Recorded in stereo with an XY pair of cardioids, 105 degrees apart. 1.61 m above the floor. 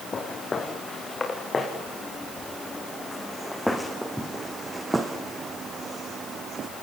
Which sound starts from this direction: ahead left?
Footsteps, at 0.1 s.